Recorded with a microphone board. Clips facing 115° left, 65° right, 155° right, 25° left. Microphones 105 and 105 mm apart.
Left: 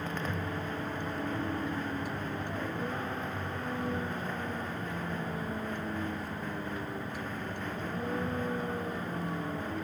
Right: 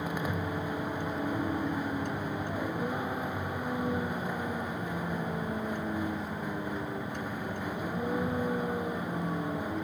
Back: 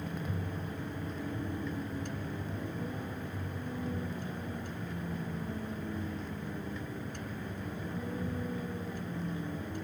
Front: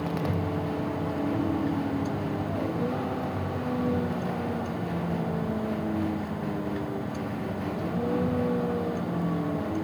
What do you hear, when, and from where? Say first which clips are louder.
0.0 s a vehicle: right 2 dB, front 10 dB; 10° left